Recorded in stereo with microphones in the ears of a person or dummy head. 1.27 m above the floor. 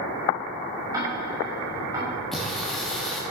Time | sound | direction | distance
0.9 | ticking | 30° right (ahead or behind) | 2.5 m
2.3 | singing | 5° right (ahead or behind) | 1.0 m